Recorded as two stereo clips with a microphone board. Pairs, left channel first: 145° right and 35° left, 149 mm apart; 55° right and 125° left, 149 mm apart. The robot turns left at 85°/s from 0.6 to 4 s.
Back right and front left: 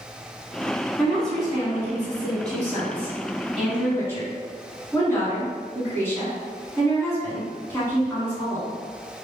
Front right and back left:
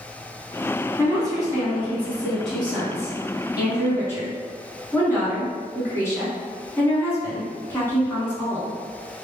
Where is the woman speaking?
155° left, 1.7 m; by 8.8 s 100° right, 1.7 m.